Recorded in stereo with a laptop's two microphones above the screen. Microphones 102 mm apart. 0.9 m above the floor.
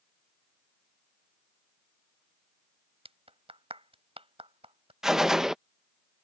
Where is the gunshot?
5° right (ahead or behind).